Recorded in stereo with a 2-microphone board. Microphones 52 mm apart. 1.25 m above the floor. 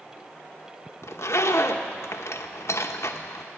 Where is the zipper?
60° left (ahead or behind), 0.8 m.